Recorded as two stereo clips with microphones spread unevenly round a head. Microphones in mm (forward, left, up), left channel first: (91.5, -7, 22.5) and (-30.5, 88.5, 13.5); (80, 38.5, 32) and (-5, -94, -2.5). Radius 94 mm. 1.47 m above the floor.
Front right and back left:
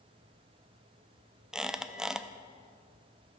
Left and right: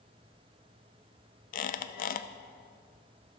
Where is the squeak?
55° left, 0.6 m.